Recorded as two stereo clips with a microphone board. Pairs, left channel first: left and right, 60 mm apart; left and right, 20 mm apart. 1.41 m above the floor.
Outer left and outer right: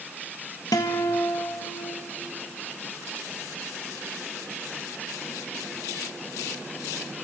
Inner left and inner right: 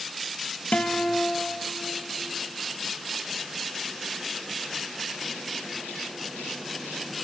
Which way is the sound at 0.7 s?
80° left.